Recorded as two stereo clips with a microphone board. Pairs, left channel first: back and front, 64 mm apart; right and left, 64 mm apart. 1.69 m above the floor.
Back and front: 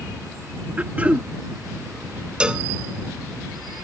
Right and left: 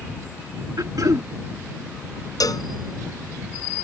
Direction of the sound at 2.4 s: 75° right.